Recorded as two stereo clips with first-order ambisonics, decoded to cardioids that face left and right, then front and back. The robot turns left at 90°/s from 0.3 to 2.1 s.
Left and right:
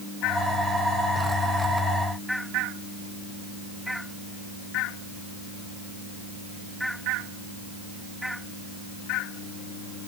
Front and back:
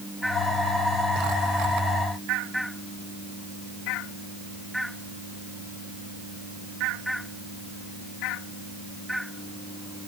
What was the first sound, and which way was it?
Only background noise.